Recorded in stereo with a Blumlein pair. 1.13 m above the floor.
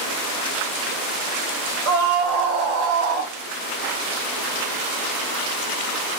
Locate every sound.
1.9 s a scream: 20° right, 4.5 m; by 3.3 s 25° right, 3.5 m